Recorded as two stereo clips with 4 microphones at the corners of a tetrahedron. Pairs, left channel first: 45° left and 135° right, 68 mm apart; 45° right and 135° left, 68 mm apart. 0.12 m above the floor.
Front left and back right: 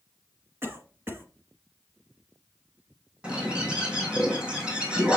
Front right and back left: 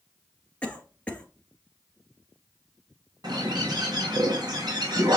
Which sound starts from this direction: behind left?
A bird, at 3.2 s.